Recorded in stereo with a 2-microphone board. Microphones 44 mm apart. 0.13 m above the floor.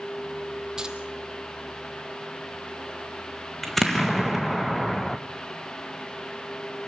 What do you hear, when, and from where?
0.8 s keys jangling: 15° right (ahead or behind), 2.5 m
3.6 s an explosion: 5° left (ahead or behind), 1.8 m